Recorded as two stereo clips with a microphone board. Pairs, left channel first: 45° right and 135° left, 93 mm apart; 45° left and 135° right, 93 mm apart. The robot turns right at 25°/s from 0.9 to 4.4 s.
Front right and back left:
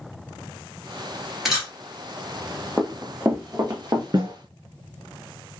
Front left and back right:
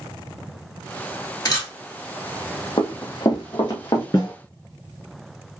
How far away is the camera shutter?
About 1.7 m.